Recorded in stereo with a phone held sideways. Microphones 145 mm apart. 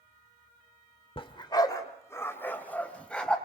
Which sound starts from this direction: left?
A dog barking, at 1.2 s.